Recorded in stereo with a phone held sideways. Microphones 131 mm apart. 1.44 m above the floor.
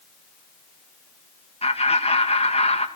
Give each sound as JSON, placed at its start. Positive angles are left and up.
{"t": 1.6, "sound": "laughter", "side_deg": 50, "distance_m": 2.5}